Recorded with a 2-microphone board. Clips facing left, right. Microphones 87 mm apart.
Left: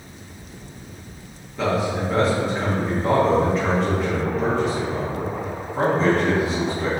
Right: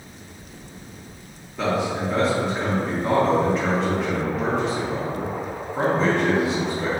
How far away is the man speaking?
About 0.6 m.